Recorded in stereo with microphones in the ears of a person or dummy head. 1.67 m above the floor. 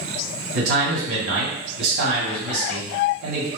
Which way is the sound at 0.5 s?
80° right.